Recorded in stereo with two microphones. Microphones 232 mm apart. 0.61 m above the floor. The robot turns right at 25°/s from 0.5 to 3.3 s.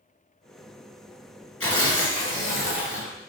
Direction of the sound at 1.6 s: 85° left.